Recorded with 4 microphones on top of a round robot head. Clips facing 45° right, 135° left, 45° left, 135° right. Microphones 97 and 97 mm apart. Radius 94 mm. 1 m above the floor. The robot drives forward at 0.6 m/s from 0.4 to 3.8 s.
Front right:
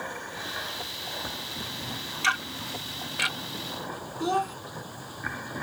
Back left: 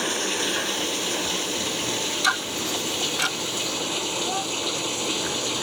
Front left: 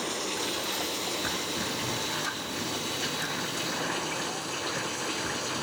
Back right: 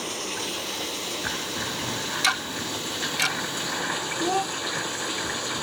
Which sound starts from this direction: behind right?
Ticking, at 2.2 s.